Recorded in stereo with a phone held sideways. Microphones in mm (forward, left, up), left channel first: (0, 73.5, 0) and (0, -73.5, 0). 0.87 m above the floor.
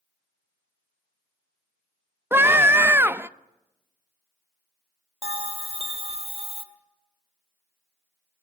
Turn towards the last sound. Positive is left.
turn(degrees=-40)  # may be behind; listen again after turning